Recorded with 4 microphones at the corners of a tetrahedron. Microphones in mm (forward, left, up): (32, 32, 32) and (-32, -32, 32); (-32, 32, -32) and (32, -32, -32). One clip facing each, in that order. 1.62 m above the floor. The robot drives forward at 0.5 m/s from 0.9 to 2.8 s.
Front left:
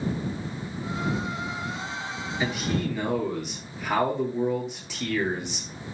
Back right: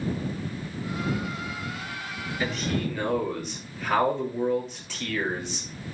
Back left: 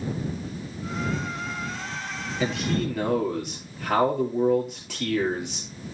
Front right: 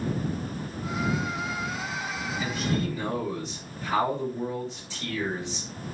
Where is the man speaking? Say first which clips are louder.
Front left 1 dB, back left 4 dB; 130° left, 4 m.